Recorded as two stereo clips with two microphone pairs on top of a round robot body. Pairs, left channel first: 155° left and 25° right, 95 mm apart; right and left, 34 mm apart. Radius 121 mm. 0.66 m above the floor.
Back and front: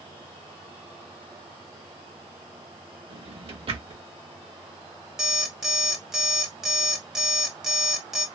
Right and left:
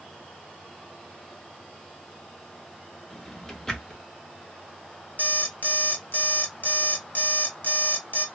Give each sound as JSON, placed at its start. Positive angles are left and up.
{"t": 3.1, "sound": "a drawer", "azimuth_deg": -20, "distance_m": 1.0}
{"t": 5.2, "sound": "an alarm clock", "azimuth_deg": -105, "distance_m": 1.1}